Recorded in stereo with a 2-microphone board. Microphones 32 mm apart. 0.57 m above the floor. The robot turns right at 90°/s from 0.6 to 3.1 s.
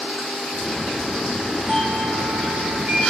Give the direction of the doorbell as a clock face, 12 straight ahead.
5 o'clock.